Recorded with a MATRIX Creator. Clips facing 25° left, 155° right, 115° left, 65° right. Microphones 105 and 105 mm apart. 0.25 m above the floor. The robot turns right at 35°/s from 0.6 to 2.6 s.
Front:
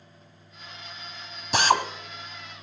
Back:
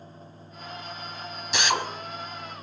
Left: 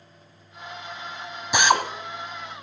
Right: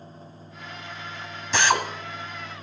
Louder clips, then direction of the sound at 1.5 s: Front 5 dB, left 2 dB; 40° left.